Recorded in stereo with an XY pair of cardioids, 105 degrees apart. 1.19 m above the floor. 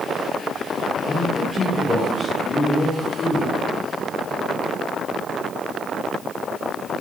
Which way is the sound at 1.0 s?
25° left.